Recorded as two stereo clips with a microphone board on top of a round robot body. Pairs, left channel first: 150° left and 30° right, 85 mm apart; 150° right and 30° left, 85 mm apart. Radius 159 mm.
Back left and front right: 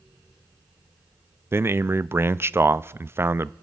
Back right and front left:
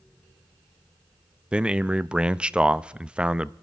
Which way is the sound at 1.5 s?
35° right.